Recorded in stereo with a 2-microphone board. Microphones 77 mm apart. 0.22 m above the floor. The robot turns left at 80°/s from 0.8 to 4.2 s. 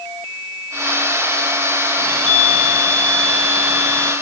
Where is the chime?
35° left, 2.5 m; by 4.1 s 140° right, 2.5 m.